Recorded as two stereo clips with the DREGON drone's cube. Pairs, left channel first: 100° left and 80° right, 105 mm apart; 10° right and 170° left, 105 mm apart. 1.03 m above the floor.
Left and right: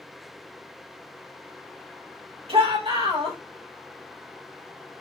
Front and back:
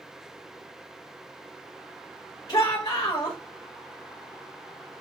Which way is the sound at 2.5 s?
55° right.